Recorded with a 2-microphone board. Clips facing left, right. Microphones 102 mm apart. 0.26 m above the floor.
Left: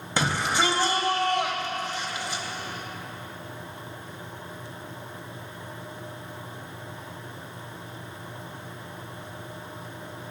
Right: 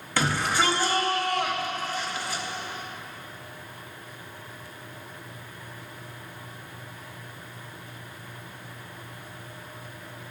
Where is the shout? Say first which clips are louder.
Even; 20° left (ahead or behind), 1.0 m.